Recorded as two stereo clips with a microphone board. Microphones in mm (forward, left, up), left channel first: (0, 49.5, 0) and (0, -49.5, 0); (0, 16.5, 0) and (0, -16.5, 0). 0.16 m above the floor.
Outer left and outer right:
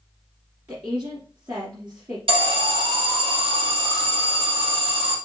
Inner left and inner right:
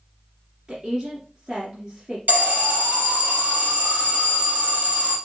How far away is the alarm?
About 3 m.